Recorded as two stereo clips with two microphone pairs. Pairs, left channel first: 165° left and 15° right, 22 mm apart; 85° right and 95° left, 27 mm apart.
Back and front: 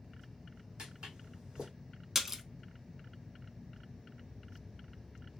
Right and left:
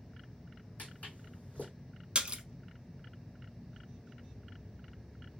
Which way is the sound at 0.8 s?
60° right.